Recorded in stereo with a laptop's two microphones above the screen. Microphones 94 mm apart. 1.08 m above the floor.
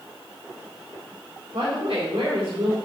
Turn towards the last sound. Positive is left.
turn(degrees=-75)  # may be behind; listen again after turning